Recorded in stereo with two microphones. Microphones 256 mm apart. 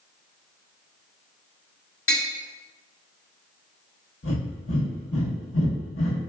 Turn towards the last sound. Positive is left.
turn(degrees=55)  # may be behind; listen again after turning